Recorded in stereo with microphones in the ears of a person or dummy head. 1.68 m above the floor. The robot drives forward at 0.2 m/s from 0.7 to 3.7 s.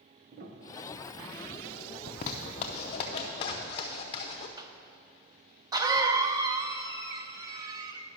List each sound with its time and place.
0.3 s a piano: 40° right (ahead or behind), 0.8 m
2.1 s a zipper: 25° left (ahead or behind), 0.6 m; by 4.5 s 20° left (ahead or behind), 0.7 m
4.6 s a cough: 20° right (ahead or behind), 0.5 m